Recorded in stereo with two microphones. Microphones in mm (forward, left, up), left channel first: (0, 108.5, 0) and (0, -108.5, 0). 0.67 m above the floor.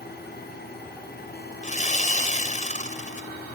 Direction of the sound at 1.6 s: 35° left (ahead or behind).